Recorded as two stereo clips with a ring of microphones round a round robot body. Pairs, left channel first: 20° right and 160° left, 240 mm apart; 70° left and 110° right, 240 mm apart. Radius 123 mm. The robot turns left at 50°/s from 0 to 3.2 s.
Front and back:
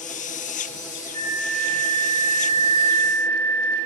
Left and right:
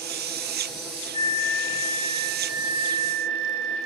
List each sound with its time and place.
1.1 s a flute: 50° left, 4 m; by 3.8 s 55° right, 4 m